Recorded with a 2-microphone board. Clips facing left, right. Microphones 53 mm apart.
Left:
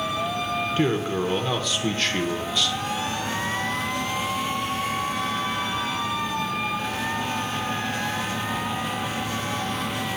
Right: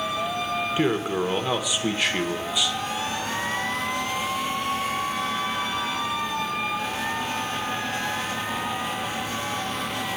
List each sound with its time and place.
0.8 s a man speaking: 10° right (ahead or behind), 0.8 m